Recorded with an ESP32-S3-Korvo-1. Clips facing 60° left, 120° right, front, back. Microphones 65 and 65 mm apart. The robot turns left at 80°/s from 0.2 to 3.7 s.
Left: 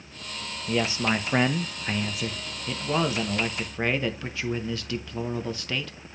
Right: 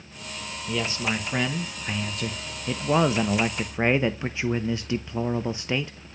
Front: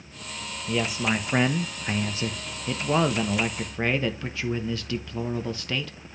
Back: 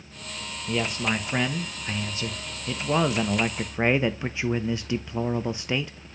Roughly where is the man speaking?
Left.